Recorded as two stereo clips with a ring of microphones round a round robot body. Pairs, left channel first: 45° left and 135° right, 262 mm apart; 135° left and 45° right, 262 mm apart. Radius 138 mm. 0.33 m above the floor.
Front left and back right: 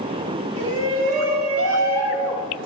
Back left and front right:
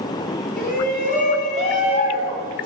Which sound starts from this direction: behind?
A shout, at 0.6 s.